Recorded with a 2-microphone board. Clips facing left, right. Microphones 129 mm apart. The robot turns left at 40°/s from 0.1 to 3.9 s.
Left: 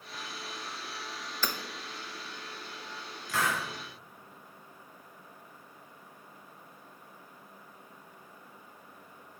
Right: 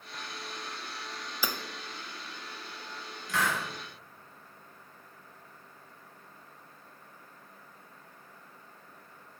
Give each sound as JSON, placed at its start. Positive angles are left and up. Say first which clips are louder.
{"t": 1.4, "sound": "hammering", "louder": "even", "side_deg": -10, "distance_m": 0.6}
{"t": 3.3, "sound": "a hiss", "louder": "even", "side_deg": 0, "distance_m": 2.0}